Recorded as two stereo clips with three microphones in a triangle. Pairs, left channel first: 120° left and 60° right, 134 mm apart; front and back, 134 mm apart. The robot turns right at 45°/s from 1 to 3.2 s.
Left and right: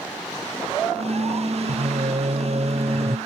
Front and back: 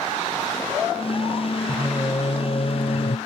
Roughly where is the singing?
Right.